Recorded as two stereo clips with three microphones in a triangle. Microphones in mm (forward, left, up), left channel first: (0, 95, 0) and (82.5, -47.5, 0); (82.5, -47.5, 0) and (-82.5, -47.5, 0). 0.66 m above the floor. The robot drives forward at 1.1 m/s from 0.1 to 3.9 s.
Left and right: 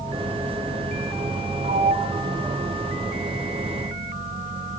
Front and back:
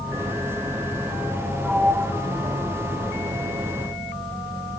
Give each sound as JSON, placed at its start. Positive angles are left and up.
{"t": 1.6, "sound": "a sliding door", "azimuth_deg": -95, "distance_m": 1.4}